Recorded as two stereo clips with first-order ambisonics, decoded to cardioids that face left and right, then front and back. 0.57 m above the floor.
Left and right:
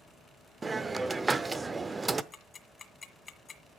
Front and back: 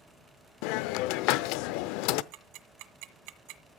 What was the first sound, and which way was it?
A hiss, 10° right.